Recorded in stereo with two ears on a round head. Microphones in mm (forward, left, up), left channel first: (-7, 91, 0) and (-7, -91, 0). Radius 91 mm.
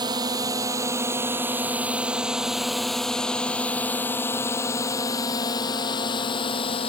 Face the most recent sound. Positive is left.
turn(degrees=25)  # may be behind; listen again after turning